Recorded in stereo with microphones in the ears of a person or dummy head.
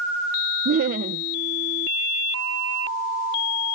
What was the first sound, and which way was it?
Laughter, 45° right (ahead or behind).